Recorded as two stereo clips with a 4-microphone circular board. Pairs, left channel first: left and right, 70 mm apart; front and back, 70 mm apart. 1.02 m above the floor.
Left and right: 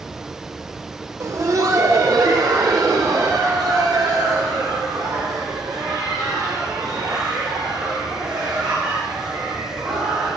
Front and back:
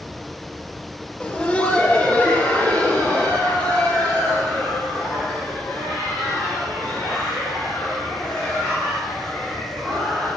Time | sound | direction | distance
1.2 | laughter | 65° right | 0.8 m